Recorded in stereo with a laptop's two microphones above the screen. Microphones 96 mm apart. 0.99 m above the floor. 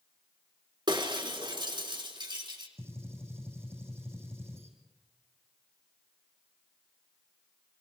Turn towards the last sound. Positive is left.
turn(degrees=-25)  # may be behind; listen again after turning